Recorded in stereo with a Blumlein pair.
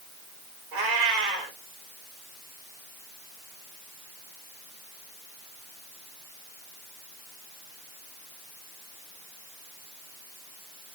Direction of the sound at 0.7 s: 50° right.